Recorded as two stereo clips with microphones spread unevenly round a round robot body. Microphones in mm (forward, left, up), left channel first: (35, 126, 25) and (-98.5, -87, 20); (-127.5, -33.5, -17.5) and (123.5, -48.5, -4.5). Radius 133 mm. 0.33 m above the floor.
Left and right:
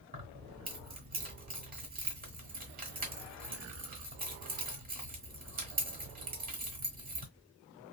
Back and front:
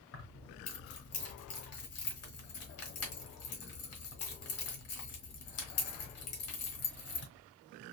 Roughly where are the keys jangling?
Behind.